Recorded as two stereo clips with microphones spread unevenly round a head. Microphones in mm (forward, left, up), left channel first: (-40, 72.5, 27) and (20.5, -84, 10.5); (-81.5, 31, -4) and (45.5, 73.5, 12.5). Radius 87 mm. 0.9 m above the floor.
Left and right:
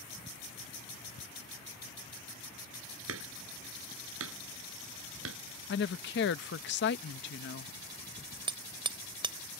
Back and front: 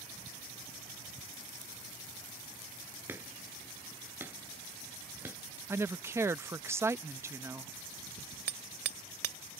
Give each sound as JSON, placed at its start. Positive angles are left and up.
{"t": 3.1, "sound": "hammering", "azimuth_deg": -60}
{"t": 5.7, "sound": "a woman speaking", "azimuth_deg": 95}
{"t": 8.5, "sound": "hammering", "azimuth_deg": -5}